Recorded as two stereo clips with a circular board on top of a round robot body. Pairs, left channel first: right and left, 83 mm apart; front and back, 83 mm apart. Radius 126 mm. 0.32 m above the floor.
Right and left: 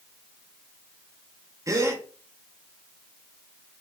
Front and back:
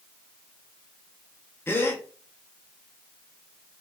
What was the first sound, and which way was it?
A gasp, 55° left.